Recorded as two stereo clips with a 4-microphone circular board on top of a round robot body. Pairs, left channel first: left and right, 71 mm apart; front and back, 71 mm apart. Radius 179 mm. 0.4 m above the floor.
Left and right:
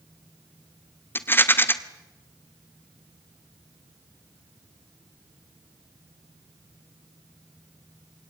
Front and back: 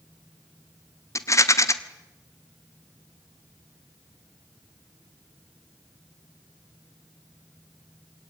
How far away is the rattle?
About 1.8 m.